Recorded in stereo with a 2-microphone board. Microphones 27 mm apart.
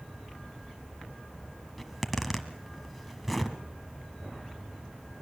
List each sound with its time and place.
1.8 s a zipper: centre (ahead or behind), 1.6 m